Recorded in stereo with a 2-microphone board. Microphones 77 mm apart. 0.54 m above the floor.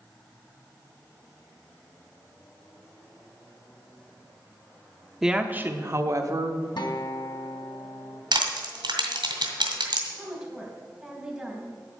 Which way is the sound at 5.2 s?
5° right (ahead or behind).